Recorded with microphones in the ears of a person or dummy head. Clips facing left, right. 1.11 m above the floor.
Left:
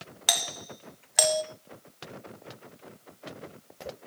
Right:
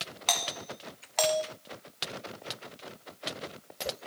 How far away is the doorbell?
About 1.0 m.